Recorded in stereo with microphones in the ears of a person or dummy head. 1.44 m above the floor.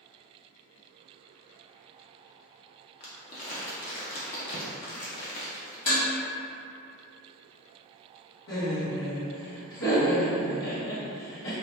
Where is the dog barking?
I don't hear a dog barking.